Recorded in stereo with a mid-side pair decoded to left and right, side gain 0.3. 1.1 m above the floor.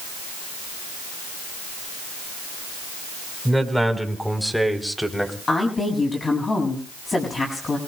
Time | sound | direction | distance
3.5 | a man speaking | 5° right | 4.5 m
5.5 | a woman speaking | 45° left | 7 m